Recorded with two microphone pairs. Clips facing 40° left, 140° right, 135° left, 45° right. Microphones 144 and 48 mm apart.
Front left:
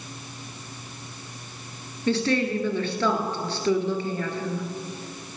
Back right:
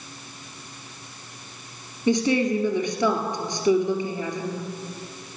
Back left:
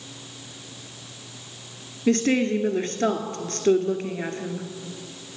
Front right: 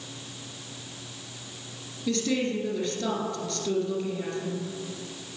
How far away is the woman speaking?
About 2.0 m.